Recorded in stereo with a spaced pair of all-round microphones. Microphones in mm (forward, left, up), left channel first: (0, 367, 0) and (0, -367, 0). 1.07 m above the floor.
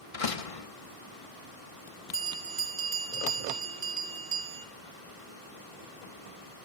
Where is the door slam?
50° left (ahead or behind), 1.0 m.